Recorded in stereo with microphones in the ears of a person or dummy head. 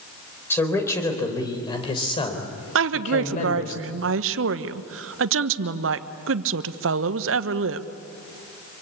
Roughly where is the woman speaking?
Right.